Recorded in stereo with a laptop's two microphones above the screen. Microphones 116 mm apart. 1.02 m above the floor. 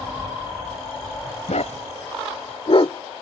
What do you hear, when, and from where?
1.5 s a dog barking: 75° left (ahead or behind); by 3.2 s 35° left (ahead or behind)